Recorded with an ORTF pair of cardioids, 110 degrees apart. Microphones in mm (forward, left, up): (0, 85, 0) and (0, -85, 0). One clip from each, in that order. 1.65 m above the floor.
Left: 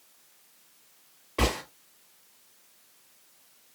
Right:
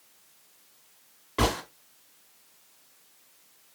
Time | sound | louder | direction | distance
1.4 | a gunshot | right 1 dB | 20° right | 2.5 m